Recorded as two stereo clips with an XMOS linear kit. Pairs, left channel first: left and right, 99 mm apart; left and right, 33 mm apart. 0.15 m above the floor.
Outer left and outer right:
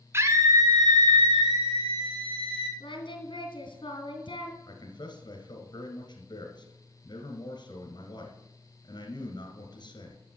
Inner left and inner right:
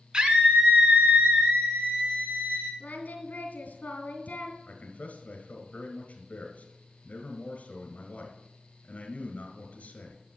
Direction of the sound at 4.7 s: 45° left (ahead or behind).